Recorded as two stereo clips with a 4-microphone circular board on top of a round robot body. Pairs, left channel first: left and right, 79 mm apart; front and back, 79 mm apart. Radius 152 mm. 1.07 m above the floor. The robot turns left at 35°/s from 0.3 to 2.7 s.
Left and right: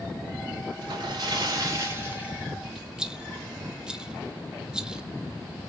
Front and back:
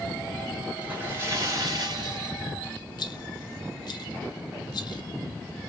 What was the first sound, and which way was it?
A splash, 110° right.